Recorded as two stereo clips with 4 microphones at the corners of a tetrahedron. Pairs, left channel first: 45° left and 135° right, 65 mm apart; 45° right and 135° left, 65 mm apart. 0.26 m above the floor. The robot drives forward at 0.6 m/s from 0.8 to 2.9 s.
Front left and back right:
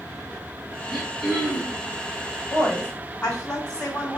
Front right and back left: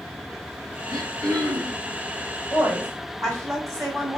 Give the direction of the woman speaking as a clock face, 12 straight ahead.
8 o'clock.